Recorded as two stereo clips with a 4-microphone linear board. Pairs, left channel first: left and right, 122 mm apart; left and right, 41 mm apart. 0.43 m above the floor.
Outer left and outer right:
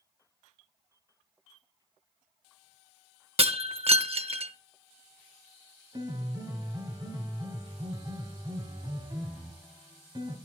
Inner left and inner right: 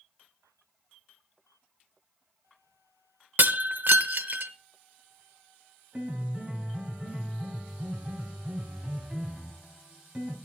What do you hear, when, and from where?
3.4 s breaking glass: 55° right (ahead or behind), 0.8 m
5.9 s a piano: 35° right (ahead or behind), 2 m